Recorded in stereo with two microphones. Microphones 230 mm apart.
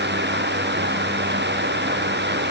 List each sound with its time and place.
Only background noise.